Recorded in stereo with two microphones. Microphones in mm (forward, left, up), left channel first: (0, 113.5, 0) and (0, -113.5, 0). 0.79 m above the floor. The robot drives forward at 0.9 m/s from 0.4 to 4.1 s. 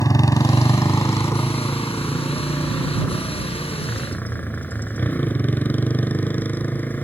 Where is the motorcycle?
15° left (ahead or behind); by 7.0 s 5° left (ahead or behind).